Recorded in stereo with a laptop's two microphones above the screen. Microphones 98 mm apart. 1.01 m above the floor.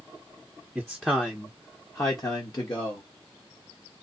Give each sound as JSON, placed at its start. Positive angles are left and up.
{"t": 0.8, "sound": "a man speaking", "side_deg": -5, "distance_m": 0.9}